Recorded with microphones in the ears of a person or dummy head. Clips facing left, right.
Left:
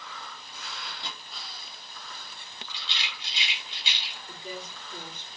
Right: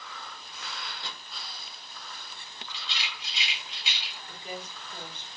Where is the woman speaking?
40° left (ahead or behind), 2.5 m.